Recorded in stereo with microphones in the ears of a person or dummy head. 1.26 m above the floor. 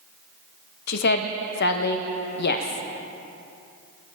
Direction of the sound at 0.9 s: 60° left (ahead or behind).